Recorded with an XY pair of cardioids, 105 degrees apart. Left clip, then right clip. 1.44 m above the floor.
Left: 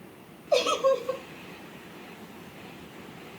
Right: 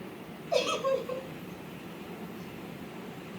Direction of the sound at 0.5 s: 55° left.